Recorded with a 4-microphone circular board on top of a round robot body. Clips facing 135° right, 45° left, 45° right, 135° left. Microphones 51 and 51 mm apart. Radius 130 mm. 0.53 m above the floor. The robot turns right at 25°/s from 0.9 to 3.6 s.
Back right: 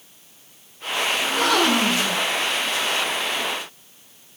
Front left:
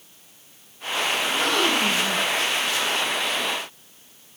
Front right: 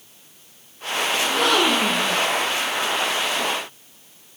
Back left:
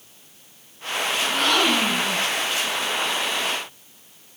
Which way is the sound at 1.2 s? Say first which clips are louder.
Back right 4 dB, front right 1 dB; 140° right.